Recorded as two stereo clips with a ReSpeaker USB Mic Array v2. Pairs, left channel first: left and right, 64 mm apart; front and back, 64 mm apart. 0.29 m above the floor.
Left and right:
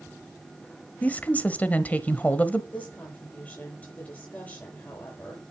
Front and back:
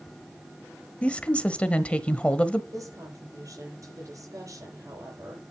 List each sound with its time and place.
1.0 s a woman speaking: 50° left, 1.0 m
2.7 s a woman speaking: 155° left, 7.5 m